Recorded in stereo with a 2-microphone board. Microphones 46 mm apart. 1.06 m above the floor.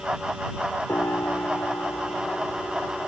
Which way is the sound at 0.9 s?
85° left.